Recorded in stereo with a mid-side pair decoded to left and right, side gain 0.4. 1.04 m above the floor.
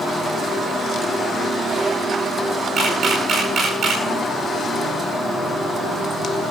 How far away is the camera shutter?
About 8.5 m.